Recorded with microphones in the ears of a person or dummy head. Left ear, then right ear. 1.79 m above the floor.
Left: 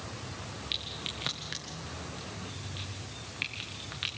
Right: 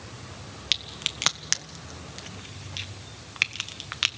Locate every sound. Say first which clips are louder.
0.7 s a crack: right 8 dB; 40° right (ahead or behind), 1.0 m